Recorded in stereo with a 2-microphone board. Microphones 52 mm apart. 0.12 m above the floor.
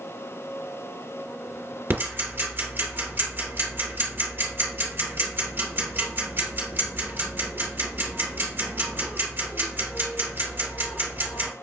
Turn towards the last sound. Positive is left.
turn(degrees=-50)  # may be behind; listen again after turning